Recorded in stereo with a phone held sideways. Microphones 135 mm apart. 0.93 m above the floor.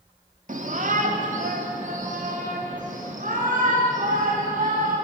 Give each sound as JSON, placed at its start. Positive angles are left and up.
{"t": 0.5, "sound": "a shout", "side_deg": -65, "distance_m": 2.0}